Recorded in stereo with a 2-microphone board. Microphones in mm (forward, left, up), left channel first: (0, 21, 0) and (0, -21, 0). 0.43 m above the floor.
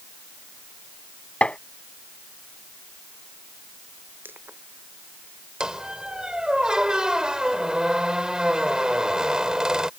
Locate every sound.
1.4 s tapping: 30° left (ahead or behind)
4.2 s crushing: 60° right (ahead or behind)
5.6 s a squeak: 20° right (ahead or behind)